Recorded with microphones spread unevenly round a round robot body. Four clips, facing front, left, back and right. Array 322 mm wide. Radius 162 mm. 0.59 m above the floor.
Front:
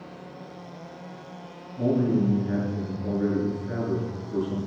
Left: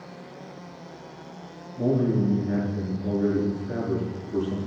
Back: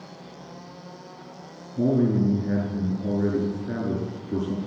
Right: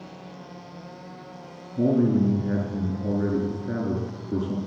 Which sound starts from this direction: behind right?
A man speaking, at 1.8 s.